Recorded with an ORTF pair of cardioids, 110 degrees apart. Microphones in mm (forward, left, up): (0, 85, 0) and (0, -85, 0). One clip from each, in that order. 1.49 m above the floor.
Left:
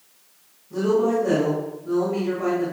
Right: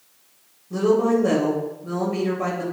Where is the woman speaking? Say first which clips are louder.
Right 1 dB; 35° right, 1.7 m.